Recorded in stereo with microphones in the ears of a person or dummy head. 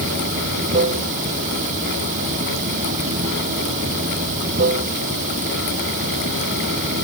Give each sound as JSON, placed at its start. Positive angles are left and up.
{"t": 0.0, "sound": "running water", "side_deg": -40}